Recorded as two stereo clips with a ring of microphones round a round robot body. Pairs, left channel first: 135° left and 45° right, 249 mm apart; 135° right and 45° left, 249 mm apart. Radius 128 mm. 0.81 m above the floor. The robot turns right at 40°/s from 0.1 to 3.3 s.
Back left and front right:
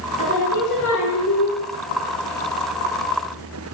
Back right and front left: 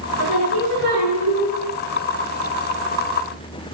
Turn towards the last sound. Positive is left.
turn(degrees=-165)